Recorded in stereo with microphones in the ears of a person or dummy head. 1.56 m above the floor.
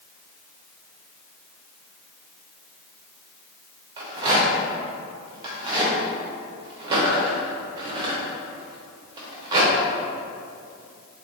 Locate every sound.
4.0 s a rattle: 25° right (ahead or behind), 0.7 m